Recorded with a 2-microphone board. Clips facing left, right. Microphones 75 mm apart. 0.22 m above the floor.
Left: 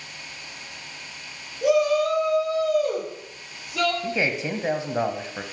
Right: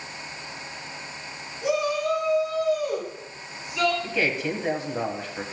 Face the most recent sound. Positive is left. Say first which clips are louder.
# even
turn(degrees=20)  # may be behind; listen again after turning